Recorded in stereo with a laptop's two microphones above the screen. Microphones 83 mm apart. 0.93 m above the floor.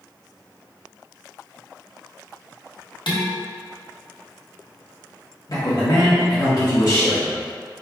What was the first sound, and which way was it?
Dishes clattering, 70° left (ahead or behind).